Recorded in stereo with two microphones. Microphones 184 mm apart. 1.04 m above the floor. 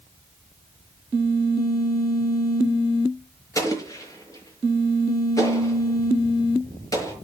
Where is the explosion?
20° left (ahead or behind), 5.5 m.